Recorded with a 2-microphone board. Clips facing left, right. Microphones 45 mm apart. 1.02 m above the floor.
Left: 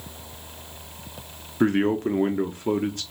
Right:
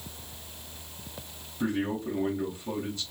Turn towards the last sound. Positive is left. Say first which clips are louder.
# left 9 dB
turn(degrees=55)  # may be behind; listen again after turning